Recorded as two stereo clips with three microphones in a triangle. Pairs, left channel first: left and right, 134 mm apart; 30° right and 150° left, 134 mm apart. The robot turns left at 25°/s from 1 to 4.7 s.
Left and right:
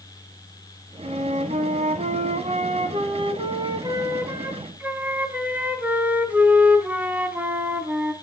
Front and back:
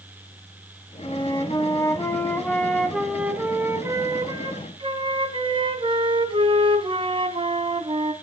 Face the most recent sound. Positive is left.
turn(degrees=-165)